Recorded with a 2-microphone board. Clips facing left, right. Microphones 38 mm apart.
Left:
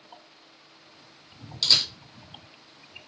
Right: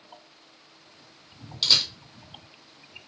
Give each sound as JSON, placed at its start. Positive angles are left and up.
{"t": 1.6, "sound": "a camera shutter", "side_deg": -20, "distance_m": 1.0}